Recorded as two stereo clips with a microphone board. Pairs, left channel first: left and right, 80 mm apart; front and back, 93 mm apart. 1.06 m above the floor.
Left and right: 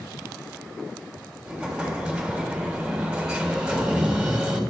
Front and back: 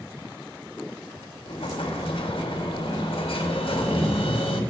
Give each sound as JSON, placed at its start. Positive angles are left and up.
{"t": 1.4, "sound": "an explosion", "azimuth_deg": -10, "distance_m": 1.4}